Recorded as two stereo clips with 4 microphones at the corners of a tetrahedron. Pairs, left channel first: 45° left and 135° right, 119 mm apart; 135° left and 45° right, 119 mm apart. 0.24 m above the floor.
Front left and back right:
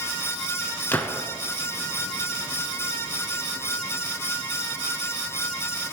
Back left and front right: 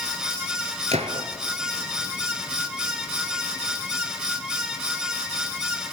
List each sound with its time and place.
0.9 s a gunshot: 30° right, 1.0 m